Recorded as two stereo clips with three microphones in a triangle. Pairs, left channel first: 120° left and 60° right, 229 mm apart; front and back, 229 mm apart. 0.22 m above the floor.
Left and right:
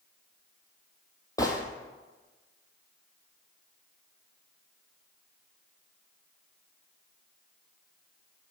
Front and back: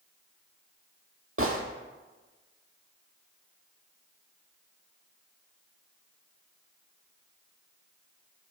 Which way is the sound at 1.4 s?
165° right.